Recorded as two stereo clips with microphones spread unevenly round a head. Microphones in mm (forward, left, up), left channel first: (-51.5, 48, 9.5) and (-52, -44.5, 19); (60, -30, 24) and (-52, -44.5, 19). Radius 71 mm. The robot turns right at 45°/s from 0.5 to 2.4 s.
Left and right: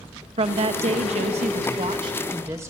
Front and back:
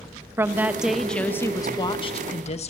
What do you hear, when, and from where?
0.4 s a woman speaking: 105° right, 1.6 m; by 2.7 s 15° right, 1.6 m